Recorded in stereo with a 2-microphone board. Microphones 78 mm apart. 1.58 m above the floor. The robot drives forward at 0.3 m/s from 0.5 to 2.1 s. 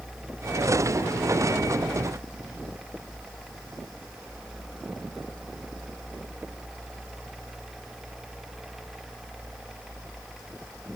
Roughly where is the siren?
No siren in this recording.